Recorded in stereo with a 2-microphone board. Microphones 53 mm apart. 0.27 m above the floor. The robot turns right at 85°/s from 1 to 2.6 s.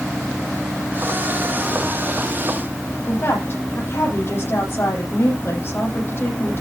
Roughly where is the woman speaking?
Left.